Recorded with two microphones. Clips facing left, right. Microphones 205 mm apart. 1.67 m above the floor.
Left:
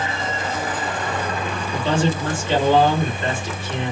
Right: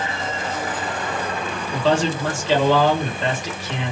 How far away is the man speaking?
About 2.5 m.